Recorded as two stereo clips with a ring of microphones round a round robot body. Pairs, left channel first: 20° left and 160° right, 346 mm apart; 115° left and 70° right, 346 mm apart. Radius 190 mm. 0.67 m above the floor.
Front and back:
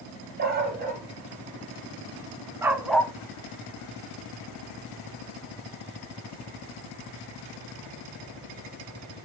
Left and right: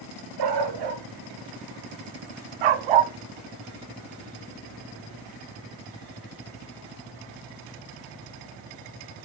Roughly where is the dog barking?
Right.